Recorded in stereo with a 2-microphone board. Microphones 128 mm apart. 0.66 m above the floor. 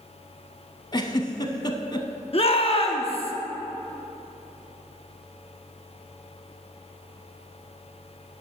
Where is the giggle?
35° left (ahead or behind), 0.7 m.